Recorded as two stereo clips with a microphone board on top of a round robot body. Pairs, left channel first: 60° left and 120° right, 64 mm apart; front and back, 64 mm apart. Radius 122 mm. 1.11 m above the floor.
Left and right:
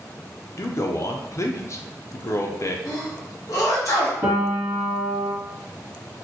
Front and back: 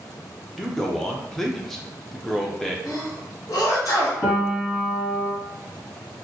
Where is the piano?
65° right, 1.3 m.